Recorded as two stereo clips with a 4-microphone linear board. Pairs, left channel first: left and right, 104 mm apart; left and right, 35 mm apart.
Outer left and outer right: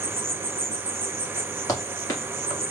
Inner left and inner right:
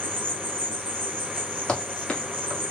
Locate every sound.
0.0 s an insect: 70° right (ahead or behind), 0.8 m
1.7 s running footsteps: 35° left (ahead or behind), 1.9 m